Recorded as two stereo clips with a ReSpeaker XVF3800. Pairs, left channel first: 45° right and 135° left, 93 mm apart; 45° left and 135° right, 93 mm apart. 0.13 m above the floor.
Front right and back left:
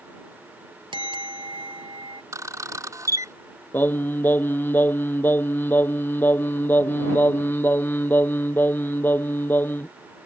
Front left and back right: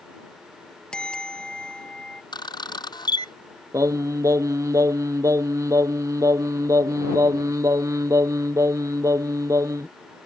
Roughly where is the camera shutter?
Left.